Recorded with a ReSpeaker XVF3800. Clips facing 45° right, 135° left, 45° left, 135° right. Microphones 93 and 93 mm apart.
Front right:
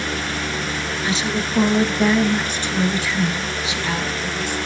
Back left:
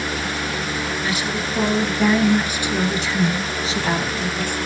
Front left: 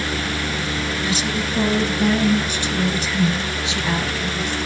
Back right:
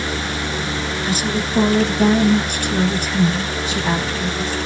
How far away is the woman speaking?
About 2 m.